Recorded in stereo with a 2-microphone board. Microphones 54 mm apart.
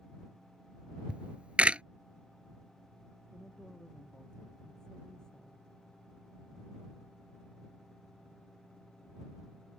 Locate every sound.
1.1 s a camera shutter: 20° right (ahead or behind)
3.3 s a woman speaking: 15° left (ahead or behind)